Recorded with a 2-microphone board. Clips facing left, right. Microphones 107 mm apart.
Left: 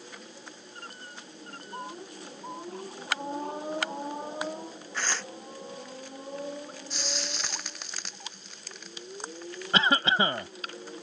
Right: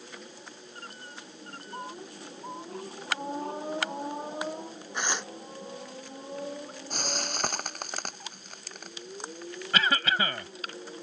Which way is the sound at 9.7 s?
25° left (ahead or behind).